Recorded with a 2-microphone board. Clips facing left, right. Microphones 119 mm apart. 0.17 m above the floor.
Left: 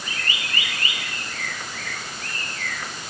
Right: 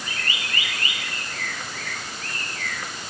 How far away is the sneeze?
I don't hear a sneeze.